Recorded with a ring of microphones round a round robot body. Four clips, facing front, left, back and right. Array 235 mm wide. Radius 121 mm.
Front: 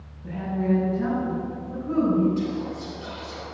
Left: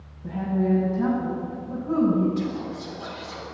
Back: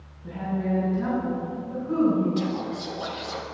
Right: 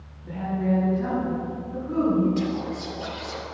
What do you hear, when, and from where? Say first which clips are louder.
0.2 s a woman speaking: left 2 dB, front 3 dB; 70° left, 6 m
2.4 s whispering: right 2 dB, even; 150° right, 3 m